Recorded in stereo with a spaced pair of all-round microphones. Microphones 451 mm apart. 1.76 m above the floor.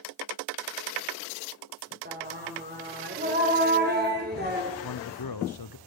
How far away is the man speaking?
About 0.7 m.